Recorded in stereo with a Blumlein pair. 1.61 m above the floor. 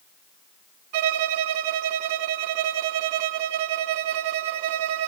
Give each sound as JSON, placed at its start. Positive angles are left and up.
{"t": 0.9, "sound": "a violin", "azimuth_deg": -35, "distance_m": 1.3}